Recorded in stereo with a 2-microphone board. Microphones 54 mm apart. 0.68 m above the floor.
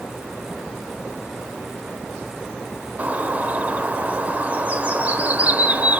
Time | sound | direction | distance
3.0 | a bird | 30° right (ahead or behind) | 0.8 m